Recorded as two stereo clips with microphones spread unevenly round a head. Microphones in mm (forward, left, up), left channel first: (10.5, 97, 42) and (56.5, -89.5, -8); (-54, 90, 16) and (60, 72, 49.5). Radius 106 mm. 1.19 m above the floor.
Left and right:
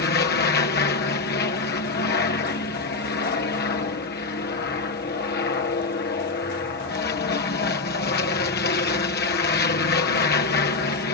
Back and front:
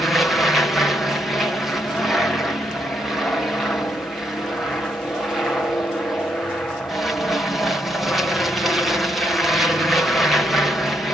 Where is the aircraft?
105° left.